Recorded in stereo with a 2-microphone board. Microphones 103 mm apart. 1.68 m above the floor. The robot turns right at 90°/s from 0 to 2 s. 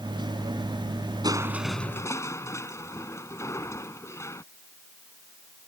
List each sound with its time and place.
1.2 s crushing: 40° right; by 4.4 s 25° left